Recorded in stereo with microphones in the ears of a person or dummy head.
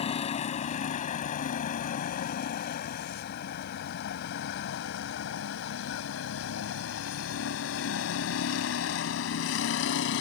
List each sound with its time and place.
0.0 s a vehicle: 35° left (ahead or behind); by 10.2 s 75° left (ahead or behind)